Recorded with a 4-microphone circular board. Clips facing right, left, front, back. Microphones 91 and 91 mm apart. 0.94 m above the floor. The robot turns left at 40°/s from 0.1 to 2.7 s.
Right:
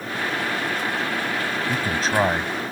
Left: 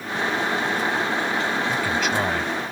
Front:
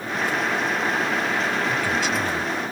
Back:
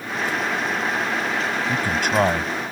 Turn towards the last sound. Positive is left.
turn(degrees=-175)